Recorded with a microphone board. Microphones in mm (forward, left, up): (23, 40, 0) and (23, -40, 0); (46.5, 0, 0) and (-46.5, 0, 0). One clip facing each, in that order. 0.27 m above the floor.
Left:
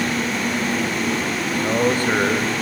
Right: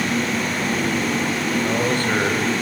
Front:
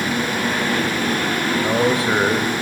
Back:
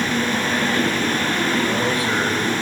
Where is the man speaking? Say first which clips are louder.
Left 5 dB, front 3 dB; 30° left, 1.4 m.